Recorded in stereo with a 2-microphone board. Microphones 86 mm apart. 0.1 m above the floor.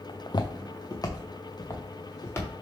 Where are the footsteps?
65° left (ahead or behind), 0.6 m; by 2.5 s 30° left (ahead or behind), 1.7 m.